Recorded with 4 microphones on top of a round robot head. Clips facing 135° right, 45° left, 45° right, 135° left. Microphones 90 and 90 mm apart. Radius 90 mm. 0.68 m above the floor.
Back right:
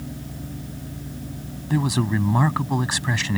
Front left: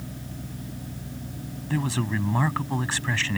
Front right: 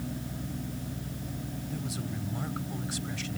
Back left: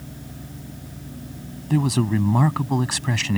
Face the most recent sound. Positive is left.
turn(degrees=150)